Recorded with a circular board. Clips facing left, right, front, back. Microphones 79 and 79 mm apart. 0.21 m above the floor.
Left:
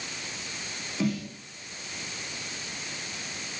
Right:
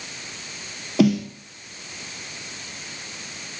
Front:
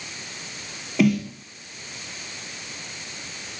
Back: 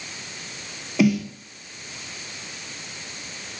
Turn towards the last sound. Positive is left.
turn(degrees=-95)